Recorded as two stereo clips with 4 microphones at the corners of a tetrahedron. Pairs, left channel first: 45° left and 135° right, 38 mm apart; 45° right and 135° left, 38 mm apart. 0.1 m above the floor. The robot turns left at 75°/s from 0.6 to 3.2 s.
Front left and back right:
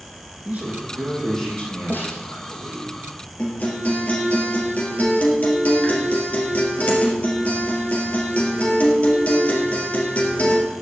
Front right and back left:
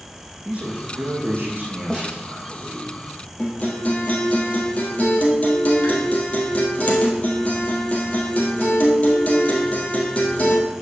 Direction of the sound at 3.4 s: Straight ahead.